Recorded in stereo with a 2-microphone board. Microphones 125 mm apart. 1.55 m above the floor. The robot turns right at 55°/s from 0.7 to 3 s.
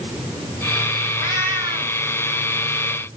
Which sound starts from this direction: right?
A cat meowing, at 1.2 s.